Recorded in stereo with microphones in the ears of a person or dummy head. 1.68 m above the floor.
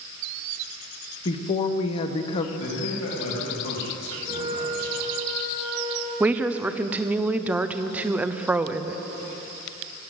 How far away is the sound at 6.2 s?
About 0.5 m.